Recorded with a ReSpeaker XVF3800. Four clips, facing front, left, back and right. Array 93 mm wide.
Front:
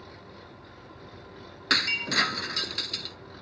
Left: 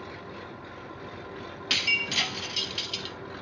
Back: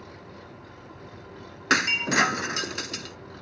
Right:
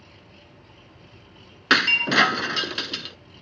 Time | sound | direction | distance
0.0 | an engine running | 100° left | ?
1.7 | breaking glass | 110° right | ?